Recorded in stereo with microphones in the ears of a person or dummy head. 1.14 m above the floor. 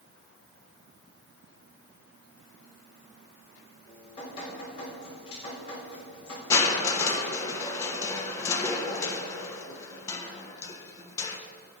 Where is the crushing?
15° left (ahead or behind), 1.0 m.